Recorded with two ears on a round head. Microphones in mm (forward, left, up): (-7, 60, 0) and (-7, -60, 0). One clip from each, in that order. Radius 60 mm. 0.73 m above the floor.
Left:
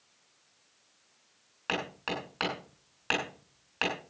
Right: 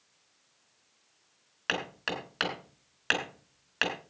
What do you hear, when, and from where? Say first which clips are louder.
1.7 s hammering: right 1 dB; 35° right (ahead or behind), 4.5 m